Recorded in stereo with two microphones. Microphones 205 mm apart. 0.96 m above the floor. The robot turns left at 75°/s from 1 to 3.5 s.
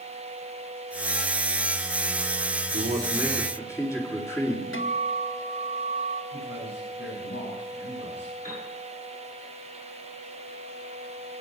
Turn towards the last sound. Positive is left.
turn(degrees=40)  # may be behind; listen again after turning